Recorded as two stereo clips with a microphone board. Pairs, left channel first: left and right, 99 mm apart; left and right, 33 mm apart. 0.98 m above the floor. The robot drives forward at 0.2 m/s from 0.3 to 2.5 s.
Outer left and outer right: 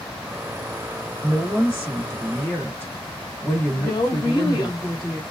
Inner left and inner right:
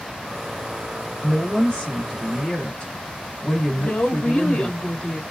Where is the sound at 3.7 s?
40° left (ahead or behind), 1.3 m.